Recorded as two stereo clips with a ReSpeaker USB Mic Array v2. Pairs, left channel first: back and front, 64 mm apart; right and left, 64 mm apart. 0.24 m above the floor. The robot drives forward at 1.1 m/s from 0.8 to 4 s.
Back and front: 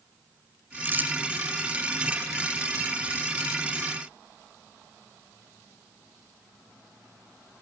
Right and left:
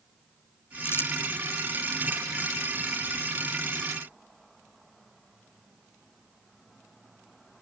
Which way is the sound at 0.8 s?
50° right.